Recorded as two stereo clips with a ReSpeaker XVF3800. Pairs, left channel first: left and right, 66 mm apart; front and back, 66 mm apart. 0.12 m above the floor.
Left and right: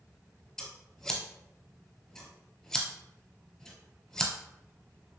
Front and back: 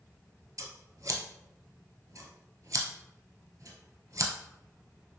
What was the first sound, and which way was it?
Scissors, 170° left.